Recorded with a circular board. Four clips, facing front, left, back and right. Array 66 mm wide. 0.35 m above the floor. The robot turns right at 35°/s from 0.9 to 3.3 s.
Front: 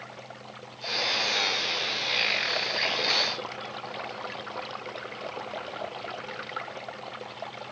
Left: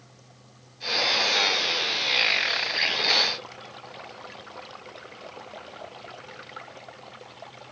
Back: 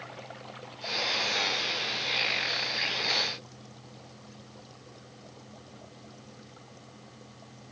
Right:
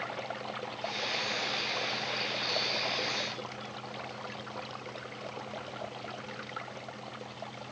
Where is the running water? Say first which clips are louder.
Right 17 dB, front 1 dB; 85° right; by 7.7 s straight ahead.